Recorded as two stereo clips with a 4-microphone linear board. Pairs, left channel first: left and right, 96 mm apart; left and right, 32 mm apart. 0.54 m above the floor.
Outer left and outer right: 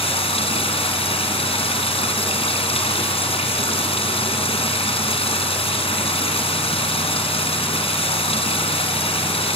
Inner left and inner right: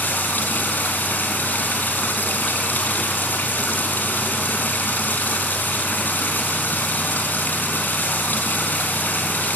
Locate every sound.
0.0 s running water: 85° left, 4 m